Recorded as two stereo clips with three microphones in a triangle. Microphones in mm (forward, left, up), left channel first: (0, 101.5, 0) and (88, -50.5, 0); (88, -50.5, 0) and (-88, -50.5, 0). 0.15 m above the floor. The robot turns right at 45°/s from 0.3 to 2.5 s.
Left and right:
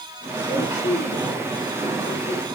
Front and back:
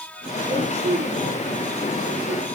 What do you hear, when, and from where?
0.5 s a woman speaking: 125° left, 8 m; by 2.5 s 150° right, 8 m